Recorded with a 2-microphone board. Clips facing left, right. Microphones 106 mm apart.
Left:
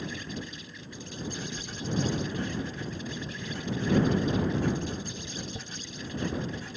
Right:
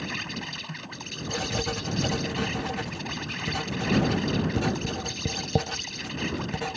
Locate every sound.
0.0 s an insect: 70° right (ahead or behind)
1.3 s writing: 80° right